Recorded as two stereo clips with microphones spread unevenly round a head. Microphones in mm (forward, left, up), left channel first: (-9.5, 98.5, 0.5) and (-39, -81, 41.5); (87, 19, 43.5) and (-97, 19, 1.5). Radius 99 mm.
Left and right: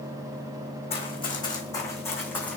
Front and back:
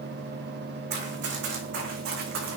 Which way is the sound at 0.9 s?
145° left.